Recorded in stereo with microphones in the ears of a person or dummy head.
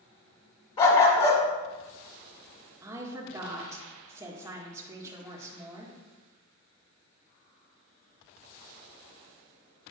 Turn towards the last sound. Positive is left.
turn(degrees=-15)  # may be behind; listen again after turning